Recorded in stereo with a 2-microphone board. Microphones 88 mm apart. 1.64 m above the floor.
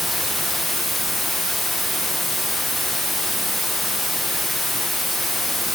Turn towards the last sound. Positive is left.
turn(degrees=5)  # may be behind; listen again after turning